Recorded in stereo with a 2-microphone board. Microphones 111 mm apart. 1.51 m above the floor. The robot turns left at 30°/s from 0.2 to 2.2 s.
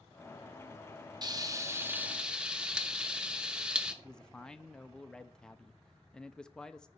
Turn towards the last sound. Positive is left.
turn(degrees=5)  # may be behind; listen again after turning